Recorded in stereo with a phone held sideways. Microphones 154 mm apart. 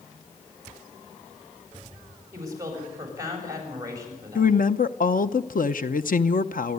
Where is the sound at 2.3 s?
25° right (ahead or behind), 7 m.